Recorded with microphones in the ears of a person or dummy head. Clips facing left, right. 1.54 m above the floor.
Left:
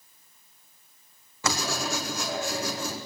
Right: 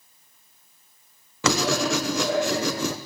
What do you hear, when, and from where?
1.4 s writing: 60° right (ahead or behind), 1.1 m